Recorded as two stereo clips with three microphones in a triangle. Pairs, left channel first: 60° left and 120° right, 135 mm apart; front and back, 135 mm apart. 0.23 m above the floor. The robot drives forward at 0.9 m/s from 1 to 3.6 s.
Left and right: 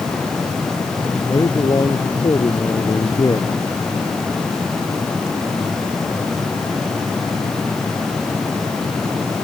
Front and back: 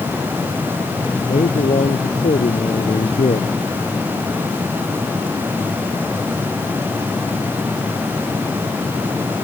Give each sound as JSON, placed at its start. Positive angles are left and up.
{"t": 1.3, "sound": "a man speaking", "azimuth_deg": 0}